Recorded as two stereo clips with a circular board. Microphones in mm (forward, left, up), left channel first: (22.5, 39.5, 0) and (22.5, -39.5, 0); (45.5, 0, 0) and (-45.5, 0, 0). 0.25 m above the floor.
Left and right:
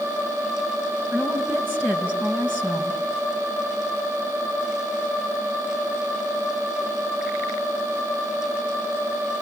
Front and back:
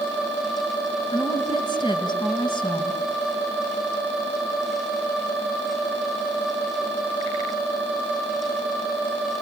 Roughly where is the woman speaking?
Ahead right.